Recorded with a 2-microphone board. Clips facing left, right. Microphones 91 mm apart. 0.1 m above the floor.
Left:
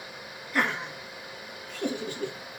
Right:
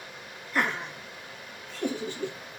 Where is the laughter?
5° left (ahead or behind), 2 m; by 2.4 s 20° left (ahead or behind), 2.5 m.